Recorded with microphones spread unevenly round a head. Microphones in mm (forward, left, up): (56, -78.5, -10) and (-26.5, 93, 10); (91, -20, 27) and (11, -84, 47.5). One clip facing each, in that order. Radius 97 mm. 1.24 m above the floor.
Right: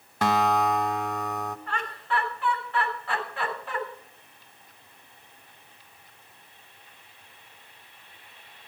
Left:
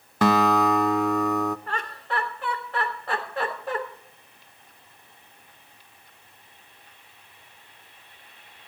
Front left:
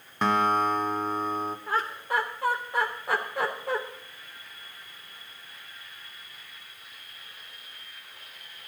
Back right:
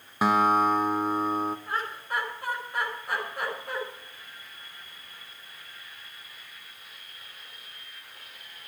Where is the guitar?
130° left, 0.6 m.